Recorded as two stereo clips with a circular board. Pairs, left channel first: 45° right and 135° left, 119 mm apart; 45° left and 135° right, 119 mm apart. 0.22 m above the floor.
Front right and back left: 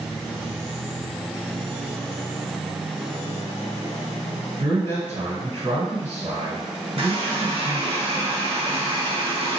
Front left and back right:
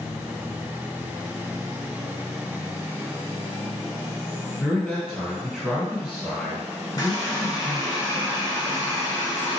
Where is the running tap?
100° left, 1.4 m.